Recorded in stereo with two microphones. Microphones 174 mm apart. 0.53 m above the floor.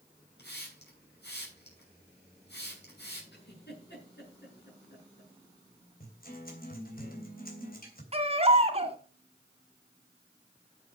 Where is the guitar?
55° left (ahead or behind), 3 m.